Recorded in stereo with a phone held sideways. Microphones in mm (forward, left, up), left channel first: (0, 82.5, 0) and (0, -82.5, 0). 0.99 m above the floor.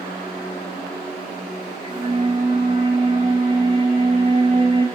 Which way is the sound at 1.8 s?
35° right (ahead or behind).